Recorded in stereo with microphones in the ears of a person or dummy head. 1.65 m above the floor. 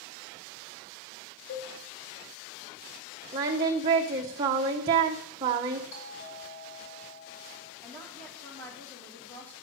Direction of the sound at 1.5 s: 60° left (ahead or behind).